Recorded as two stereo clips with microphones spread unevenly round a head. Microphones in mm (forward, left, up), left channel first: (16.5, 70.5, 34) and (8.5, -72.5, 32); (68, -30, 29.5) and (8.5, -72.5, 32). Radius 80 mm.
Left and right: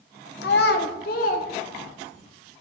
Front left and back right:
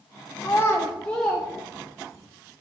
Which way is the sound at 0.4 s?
100° left.